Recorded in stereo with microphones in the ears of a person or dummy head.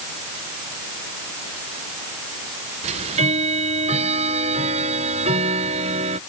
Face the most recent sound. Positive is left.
turn(degrees=-35)  # may be behind; listen again after turning